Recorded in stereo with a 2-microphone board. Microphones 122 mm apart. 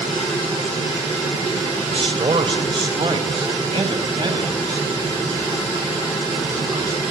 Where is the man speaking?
50° right (ahead or behind), 3 m; by 7.0 s 35° right (ahead or behind), 6.5 m.